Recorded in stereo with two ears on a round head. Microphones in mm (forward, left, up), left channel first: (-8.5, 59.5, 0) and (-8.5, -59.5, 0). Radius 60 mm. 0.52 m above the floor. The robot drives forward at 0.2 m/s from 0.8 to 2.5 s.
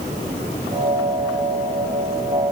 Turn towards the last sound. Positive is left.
No sound to turn to.